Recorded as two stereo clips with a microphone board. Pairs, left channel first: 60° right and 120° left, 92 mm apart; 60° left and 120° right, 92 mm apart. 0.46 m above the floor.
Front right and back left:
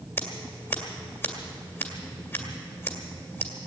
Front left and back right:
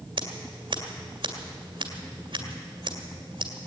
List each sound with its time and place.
0.2 s scissors: 120° right, 1.9 m